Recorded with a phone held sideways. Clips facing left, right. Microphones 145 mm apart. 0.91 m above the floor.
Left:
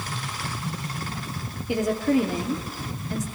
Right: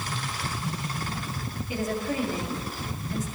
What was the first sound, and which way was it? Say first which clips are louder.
A woman speaking: left 8 dB; 70° left (ahead or behind).